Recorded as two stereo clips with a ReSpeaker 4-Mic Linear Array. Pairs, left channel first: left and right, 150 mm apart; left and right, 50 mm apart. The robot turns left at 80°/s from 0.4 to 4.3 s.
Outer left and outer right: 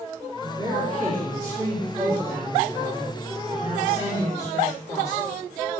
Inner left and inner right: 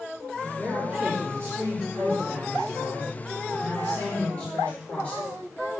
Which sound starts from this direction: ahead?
A man speaking, at 0.4 s.